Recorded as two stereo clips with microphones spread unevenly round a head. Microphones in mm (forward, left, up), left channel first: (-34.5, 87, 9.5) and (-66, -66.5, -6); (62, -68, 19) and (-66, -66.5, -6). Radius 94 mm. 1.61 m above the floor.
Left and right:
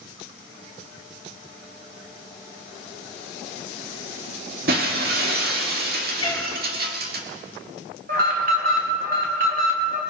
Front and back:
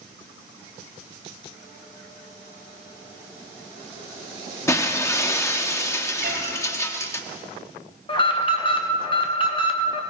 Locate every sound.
4.7 s breaking glass: 60° right, 1.8 m
6.2 s a cat meowing: 140° left, 4.5 m
8.1 s an alarm: 55° right, 2.5 m